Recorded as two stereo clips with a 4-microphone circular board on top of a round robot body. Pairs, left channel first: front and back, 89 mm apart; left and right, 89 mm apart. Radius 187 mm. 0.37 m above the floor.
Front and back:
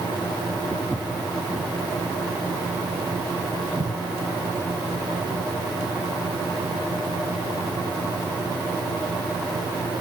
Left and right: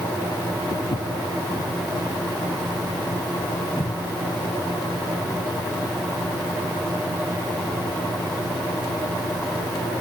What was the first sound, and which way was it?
Footsteps, 95° left.